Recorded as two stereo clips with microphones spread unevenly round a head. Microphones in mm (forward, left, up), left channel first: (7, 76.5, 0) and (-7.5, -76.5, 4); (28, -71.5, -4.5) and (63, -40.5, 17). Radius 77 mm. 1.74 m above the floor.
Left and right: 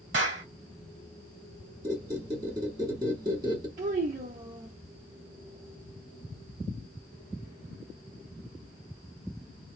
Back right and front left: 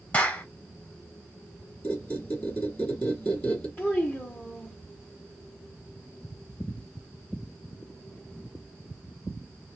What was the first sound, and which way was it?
A clap, 80° right.